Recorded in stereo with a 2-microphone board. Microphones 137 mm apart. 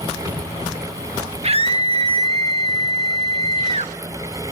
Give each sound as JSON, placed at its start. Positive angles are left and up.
{"t": 1.4, "sound": "a scream", "side_deg": -45, "distance_m": 0.9}